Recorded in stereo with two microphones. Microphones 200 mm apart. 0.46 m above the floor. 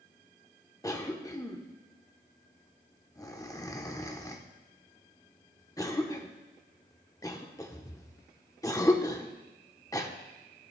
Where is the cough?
20° left (ahead or behind), 0.8 m.